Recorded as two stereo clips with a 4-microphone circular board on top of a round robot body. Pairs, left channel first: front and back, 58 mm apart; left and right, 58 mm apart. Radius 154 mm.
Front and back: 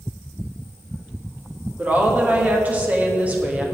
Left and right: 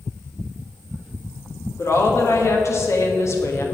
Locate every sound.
1.8 s a woman speaking: 120° left, 2.5 m